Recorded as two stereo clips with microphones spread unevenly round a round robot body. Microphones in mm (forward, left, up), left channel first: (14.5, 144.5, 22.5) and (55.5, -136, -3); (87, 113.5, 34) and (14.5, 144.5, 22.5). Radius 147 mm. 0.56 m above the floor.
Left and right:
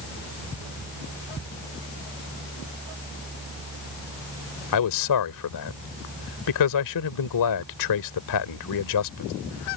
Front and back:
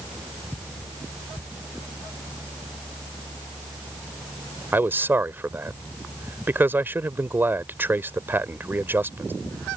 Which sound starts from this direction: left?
A man speaking, at 4.7 s.